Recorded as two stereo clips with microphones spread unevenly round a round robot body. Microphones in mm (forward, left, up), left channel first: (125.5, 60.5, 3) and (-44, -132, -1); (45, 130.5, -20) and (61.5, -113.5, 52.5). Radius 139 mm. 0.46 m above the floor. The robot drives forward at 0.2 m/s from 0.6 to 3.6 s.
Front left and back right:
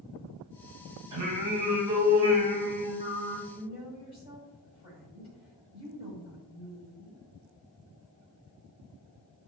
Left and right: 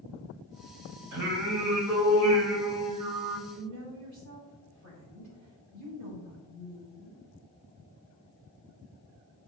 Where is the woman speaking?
60° right, 2.5 m; by 7.2 s 65° right, 2.5 m.